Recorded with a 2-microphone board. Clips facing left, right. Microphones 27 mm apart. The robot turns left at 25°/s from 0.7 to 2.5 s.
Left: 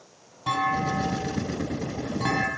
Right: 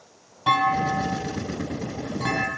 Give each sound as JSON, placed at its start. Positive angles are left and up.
{"t": 0.5, "sound": "a clunk", "azimuth_deg": -155, "distance_m": 3.5}